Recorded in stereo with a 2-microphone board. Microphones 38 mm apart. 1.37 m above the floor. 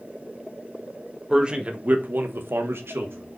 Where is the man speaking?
20° right (ahead or behind), 1.7 m; by 3.4 s 65° right (ahead or behind), 1.8 m.